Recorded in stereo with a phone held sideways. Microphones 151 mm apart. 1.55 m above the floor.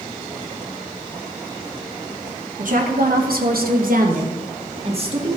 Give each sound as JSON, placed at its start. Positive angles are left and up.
{"t": 2.6, "sound": "a woman speaking", "side_deg": -60, "distance_m": 1.6}